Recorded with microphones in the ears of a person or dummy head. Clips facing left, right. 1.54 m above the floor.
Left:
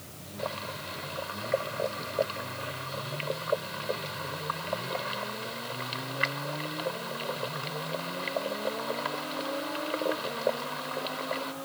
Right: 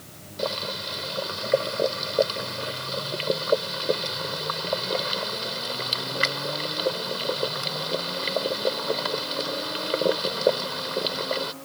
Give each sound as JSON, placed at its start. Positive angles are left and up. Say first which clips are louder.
{"t": 0.4, "sound": "boiling", "louder": "right 7 dB", "side_deg": -55}